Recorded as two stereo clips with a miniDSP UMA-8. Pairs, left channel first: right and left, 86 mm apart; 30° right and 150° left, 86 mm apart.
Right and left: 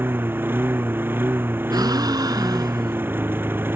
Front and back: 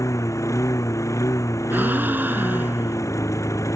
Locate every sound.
0.0 s a lawn mower: 25° left
1.7 s a gasp: 90° left